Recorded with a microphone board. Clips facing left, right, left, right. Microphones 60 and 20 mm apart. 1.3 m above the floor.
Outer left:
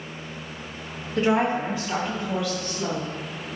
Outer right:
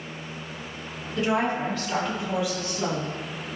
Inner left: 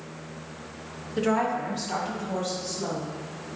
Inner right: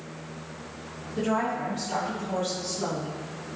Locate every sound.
1.2 s a woman speaking: 40° left (ahead or behind), 1.8 m; by 3.1 s 35° right (ahead or behind), 2.0 m